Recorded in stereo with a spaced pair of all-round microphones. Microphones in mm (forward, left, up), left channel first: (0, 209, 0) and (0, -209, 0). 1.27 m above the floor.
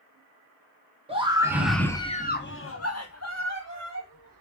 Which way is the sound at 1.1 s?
15° right (ahead or behind).